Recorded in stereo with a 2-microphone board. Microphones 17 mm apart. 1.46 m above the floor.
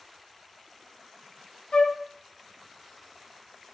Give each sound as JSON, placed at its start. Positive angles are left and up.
{"t": 1.7, "sound": "a flute", "side_deg": 65, "distance_m": 0.6}